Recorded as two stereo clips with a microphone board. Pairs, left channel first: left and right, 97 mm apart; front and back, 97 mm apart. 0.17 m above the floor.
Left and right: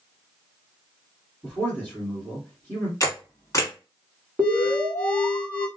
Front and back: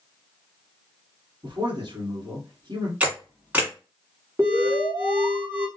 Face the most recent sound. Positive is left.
turn(degrees=-160)